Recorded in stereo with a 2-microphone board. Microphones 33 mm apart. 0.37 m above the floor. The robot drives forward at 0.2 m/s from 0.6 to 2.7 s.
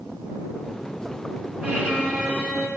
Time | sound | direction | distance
1.6 | a violin | 55° right (ahead or behind) | 2 m